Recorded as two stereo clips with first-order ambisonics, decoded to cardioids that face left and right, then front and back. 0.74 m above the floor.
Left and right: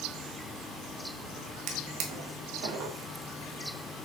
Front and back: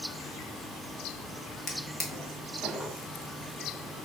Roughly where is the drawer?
Right.